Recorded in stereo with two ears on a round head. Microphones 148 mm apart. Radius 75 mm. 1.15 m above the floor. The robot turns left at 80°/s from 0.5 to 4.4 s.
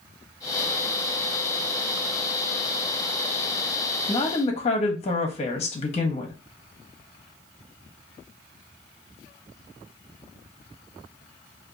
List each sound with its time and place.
4.1 s a woman speaking: 15° left (ahead or behind), 1.0 m; by 6.3 s 40° left (ahead or behind), 1.0 m